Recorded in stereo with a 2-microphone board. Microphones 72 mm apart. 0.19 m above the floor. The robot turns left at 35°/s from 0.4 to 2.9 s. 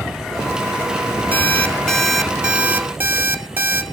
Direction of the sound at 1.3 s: 25° left.